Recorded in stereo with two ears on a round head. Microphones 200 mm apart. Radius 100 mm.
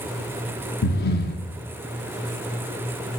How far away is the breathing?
About 1.1 m.